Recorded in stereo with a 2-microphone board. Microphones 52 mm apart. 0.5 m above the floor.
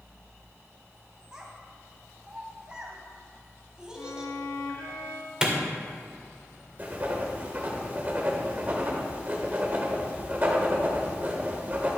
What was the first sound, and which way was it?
A child speaking, 15° right (ahead or behind).